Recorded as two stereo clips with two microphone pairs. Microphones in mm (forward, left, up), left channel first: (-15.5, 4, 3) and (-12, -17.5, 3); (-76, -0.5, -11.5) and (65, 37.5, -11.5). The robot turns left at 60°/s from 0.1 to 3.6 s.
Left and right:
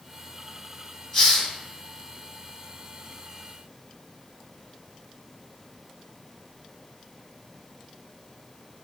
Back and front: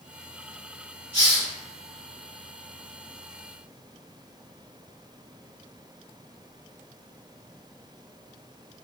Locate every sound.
1.1 s a hiss: 40° left, 1.6 m; by 1.5 s 20° left, 1.6 m